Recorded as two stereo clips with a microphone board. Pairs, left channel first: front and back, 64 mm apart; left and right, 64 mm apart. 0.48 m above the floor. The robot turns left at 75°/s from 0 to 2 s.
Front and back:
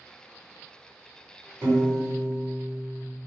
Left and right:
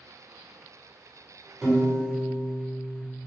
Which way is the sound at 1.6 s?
165° right.